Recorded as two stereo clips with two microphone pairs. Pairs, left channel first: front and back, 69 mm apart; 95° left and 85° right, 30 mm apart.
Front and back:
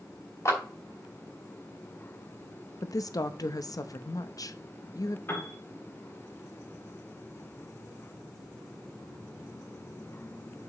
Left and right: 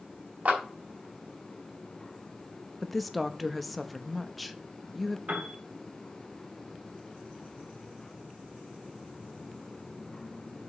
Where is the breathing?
I don't hear breathing.